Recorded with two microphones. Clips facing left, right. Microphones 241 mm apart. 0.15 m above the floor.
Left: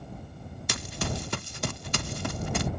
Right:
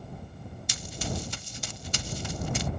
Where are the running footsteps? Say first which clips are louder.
Left 2 dB; 60° left (ahead or behind).